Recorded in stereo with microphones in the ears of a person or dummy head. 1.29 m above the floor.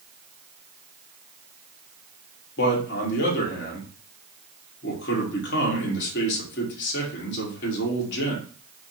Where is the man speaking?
55° left (ahead or behind), 1.4 m.